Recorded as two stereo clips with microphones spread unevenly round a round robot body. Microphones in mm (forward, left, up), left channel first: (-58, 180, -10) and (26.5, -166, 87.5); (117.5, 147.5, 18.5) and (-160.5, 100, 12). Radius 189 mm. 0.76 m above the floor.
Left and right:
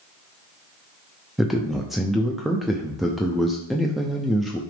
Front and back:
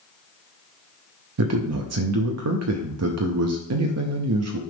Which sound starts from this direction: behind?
A man speaking, at 1.4 s.